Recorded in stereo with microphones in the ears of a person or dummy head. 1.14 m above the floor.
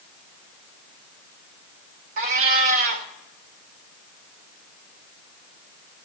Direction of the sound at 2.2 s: 50° right (ahead or behind).